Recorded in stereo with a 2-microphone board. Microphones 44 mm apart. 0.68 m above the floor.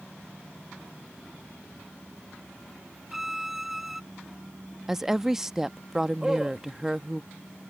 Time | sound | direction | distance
3.1 | a violin | 5° right (ahead or behind) | ?
4.9 | a woman speaking | 5° right (ahead or behind) | ?
6.2 | a man speaking | 10° right (ahead or behind) | ?